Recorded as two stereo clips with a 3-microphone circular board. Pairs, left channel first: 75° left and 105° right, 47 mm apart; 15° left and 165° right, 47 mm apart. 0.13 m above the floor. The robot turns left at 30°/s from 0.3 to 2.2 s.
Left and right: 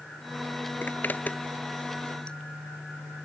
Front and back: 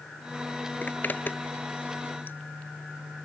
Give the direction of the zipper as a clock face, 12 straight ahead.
10 o'clock.